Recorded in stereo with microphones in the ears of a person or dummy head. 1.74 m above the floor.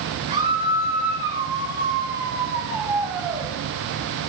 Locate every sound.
0.3 s a scream: 35° right (ahead or behind), 3.5 m; by 3.5 s 15° right (ahead or behind), 1.5 m